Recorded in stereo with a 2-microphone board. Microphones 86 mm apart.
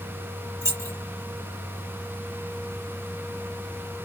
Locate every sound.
0.6 s keys jangling: 40° right (ahead or behind), 1.5 m